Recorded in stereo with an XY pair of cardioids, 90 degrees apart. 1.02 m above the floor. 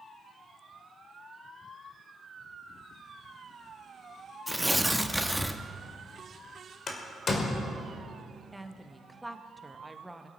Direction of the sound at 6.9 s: 45° left.